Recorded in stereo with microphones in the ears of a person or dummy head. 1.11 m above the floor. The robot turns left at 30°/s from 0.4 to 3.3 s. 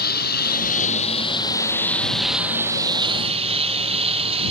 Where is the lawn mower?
55° left; by 4.5 s 35° right.